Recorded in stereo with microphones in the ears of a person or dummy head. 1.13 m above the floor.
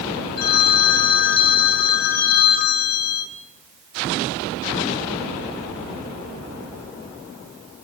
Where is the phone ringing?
55° left (ahead or behind), 1.6 m.